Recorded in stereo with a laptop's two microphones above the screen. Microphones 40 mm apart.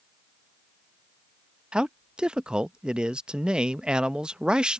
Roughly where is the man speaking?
Right.